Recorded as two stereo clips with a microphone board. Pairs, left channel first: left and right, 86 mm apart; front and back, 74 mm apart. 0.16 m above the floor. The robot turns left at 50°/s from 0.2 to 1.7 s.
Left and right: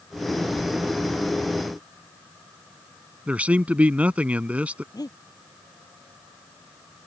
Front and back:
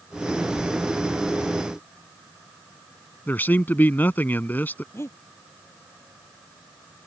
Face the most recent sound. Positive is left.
turn(degrees=55)